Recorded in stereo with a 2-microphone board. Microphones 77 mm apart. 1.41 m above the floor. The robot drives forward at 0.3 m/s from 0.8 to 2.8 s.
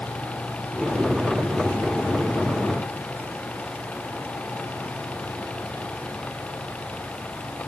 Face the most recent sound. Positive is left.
No sound to turn to.